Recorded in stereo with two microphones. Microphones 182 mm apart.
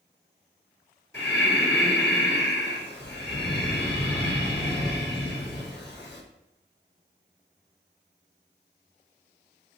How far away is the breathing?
About 6 m.